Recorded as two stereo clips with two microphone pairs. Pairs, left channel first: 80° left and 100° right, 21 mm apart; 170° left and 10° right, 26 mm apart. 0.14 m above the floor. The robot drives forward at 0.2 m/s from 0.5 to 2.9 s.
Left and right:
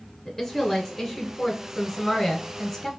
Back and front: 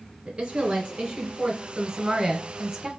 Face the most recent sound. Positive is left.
turn(degrees=60)